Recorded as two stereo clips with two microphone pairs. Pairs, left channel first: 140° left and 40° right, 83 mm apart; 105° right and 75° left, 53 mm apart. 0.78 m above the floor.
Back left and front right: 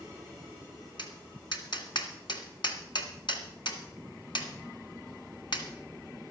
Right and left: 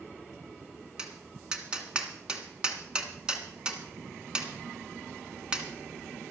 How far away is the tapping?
About 1.7 m.